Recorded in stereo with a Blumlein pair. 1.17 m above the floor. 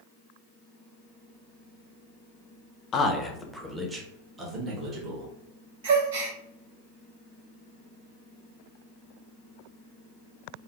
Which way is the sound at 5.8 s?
55° right.